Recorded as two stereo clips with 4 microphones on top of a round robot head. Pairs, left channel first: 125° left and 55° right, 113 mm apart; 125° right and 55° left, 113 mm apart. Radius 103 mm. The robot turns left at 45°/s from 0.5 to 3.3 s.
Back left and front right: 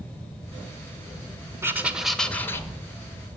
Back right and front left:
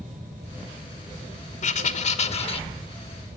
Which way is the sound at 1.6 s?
120° right.